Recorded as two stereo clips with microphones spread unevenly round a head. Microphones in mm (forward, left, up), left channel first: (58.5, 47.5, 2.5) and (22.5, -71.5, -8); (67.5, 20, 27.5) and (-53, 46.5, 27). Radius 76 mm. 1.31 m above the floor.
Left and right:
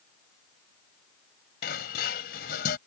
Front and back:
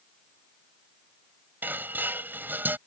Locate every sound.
1.6 s dishes clattering: 95° left